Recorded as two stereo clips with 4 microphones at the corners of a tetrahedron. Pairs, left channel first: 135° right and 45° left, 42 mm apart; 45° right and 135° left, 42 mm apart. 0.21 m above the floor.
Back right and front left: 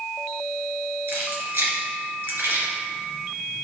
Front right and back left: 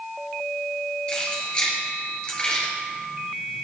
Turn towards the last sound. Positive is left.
turn(degrees=20)